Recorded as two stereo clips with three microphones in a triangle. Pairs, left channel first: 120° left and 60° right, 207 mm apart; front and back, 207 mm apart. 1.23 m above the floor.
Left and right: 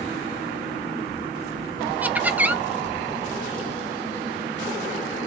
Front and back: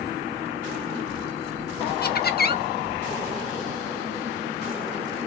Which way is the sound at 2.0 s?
20° left.